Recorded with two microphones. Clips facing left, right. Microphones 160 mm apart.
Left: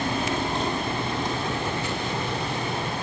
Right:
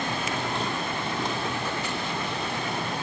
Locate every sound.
0.0 s a helicopter: 30° left (ahead or behind)